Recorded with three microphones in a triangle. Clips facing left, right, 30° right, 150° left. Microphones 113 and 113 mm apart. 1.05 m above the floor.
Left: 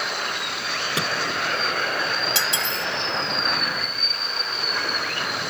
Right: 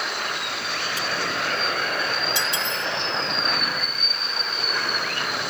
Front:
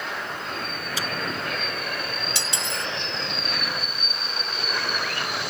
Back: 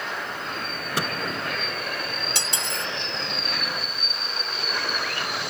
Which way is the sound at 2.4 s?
110° left.